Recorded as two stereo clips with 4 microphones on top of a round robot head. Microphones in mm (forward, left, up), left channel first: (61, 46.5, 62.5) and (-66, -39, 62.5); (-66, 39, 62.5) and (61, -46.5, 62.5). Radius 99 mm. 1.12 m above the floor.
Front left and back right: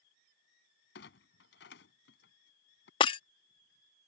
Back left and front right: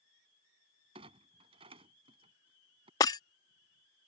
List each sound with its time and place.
0.9 s a clunk: 20° left
3.0 s breaking glass: 85° left